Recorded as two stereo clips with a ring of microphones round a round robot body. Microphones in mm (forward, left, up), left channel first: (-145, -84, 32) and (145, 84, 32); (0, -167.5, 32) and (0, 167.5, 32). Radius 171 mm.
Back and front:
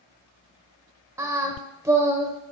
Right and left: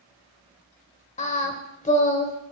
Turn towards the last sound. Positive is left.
turn(degrees=-45)